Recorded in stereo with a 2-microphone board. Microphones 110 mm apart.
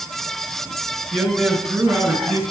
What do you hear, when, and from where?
1.1 s a man speaking: centre (ahead or behind), 2 m; by 2.4 s 15° right (ahead or behind), 1.7 m